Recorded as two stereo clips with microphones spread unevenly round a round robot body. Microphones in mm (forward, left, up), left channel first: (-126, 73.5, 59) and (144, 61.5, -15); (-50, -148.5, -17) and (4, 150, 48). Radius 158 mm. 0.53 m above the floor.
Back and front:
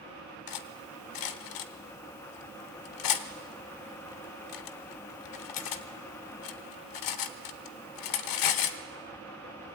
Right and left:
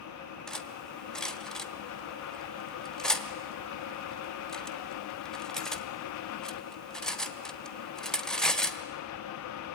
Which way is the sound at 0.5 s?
175° left.